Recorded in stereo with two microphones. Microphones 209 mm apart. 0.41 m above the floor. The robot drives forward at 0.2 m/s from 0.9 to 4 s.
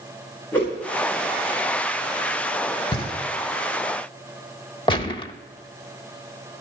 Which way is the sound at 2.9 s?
25° left (ahead or behind).